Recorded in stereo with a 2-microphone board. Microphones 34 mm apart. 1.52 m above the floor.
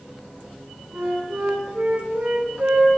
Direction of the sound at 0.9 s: 85° right.